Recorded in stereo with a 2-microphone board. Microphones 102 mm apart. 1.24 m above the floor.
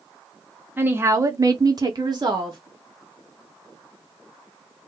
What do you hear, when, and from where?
0.8 s a woman speaking: 20° right (ahead or behind), 0.7 m; by 2.6 s 40° right (ahead or behind), 0.8 m